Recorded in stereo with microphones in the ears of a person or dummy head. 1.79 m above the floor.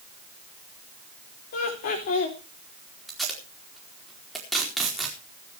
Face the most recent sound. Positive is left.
turn(degrees=0)  # may be behind; listen again after turning